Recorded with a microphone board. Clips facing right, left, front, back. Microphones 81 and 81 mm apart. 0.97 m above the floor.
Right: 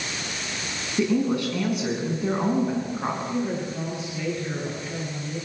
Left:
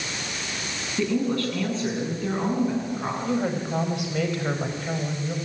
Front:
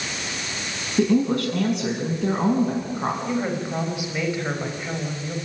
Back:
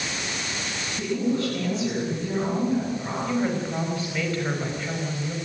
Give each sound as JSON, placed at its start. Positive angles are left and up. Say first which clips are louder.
{"t": 1.0, "sound": "a woman speaking", "louder": "right 2 dB, front 6 dB", "azimuth_deg": -15, "distance_m": 8.0}
{"t": 3.2, "sound": "a woman speaking", "louder": "left 2 dB, even", "azimuth_deg": 75, "distance_m": 5.0}